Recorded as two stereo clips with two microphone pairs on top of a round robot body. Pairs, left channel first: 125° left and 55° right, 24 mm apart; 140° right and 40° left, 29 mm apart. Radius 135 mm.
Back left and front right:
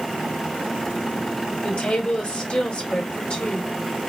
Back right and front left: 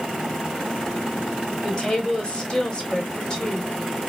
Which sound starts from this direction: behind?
A woman speaking, at 1.6 s.